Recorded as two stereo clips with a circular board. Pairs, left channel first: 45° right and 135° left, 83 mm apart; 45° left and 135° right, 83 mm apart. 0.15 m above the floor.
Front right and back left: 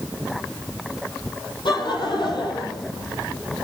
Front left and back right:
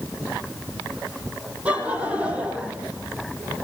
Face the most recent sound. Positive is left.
turn(degrees=-60)